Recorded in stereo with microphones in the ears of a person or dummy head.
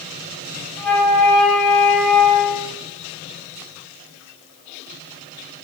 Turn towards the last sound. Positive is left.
turn(degrees=5)  # may be behind; listen again after turning